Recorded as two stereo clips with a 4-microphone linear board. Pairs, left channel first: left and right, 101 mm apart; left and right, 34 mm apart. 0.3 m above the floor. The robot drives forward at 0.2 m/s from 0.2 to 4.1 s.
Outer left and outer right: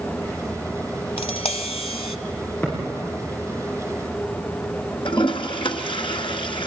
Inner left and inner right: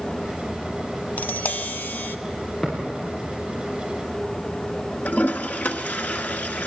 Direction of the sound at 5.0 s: 60° left (ahead or behind).